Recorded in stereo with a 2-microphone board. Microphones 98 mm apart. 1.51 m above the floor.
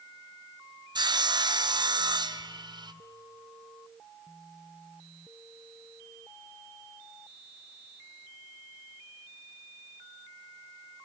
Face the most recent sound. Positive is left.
turn(degrees=-45)  # may be behind; listen again after turning